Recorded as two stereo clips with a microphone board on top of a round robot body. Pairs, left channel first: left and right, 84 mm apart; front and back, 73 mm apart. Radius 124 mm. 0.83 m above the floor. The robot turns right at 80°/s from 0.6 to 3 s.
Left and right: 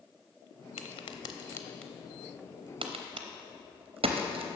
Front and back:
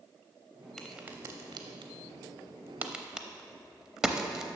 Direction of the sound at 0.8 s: 85° left.